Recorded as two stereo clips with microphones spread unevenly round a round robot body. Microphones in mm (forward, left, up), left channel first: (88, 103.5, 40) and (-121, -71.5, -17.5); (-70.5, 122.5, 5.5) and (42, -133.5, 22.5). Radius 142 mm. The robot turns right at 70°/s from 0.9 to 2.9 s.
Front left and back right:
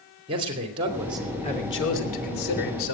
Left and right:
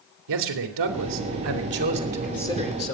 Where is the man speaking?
75° right, 2.5 m; by 3.0 s 65° left, 2.5 m.